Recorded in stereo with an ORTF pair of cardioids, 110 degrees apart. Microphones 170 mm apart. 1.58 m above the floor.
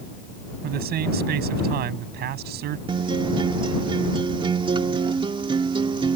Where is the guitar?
30° right.